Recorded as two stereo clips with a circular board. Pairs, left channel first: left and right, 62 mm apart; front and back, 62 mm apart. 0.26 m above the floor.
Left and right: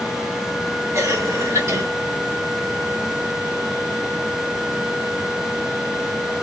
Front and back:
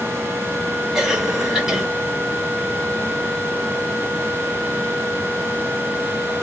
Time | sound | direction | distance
0.9 | a cough | 90° right | 2 m